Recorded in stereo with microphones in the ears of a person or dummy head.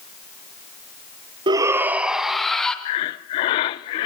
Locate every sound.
1.5 s a shout: 25° right (ahead or behind), 1.0 m; by 2.8 s 5° left (ahead or behind), 2.5 m
2.9 s breathing: 25° left (ahead or behind), 0.5 m